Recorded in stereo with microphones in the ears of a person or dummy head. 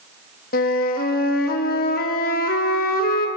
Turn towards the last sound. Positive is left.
turn(degrees=50)  # may be behind; listen again after turning